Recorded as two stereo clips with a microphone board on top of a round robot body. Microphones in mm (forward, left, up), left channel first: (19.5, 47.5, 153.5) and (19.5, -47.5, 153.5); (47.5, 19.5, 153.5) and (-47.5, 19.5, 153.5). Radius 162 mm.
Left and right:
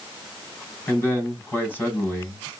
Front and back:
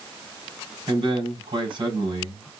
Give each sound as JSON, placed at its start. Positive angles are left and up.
{"t": 0.9, "sound": "a man speaking", "azimuth_deg": 155, "distance_m": 3.0}